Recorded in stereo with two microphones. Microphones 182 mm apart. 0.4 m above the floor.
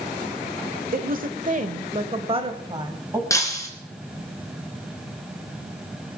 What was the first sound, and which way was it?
A woman speaking, 50° right (ahead or behind).